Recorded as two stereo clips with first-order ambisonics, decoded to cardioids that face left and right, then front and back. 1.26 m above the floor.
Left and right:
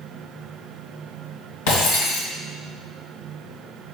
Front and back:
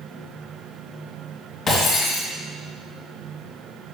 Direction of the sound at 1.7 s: 75° left.